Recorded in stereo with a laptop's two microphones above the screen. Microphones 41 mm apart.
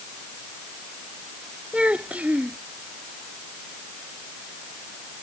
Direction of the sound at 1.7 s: 35° right (ahead or behind).